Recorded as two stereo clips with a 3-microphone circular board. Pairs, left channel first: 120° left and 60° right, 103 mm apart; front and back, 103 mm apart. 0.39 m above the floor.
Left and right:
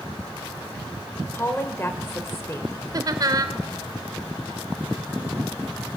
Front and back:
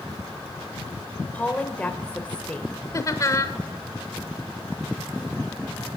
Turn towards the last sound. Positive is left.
turn(degrees=-35)